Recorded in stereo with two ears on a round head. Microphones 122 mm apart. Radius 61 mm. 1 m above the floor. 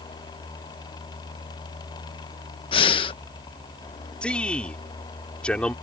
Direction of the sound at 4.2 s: 10° left (ahead or behind).